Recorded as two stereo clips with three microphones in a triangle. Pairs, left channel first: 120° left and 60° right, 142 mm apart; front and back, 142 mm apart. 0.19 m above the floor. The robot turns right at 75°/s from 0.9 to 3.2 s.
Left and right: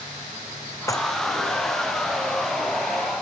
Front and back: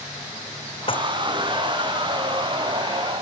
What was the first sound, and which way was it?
Dishes clattering, 50° left.